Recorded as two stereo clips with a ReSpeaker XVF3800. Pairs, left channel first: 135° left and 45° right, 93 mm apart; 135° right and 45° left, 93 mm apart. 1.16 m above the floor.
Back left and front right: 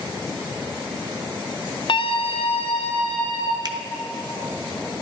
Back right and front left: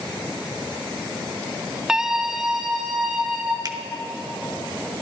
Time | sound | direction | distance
1.9 | a scream | 130° left | 0.5 m
3.6 | a finger snap | straight ahead | 0.7 m